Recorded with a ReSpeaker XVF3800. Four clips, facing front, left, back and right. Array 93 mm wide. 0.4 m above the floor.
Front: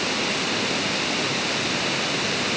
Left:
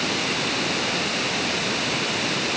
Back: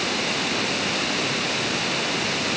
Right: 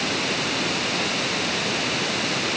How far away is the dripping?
I don't hear dripping.